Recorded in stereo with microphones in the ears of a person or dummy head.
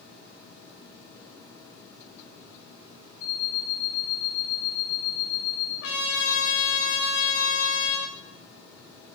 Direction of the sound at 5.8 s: 60° left (ahead or behind).